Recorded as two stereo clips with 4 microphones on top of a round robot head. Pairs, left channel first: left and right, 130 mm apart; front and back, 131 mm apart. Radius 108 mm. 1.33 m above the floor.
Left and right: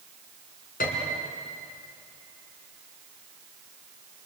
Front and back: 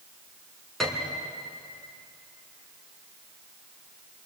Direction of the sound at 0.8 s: 90° left.